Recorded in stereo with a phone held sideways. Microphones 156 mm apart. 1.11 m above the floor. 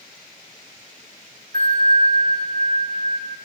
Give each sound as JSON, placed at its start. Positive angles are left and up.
{"t": 1.5, "sound": "a bell", "side_deg": -70, "distance_m": 3.0}